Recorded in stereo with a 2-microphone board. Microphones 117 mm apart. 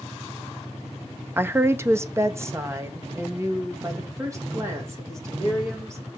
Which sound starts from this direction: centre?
A woman speaking, at 1.4 s.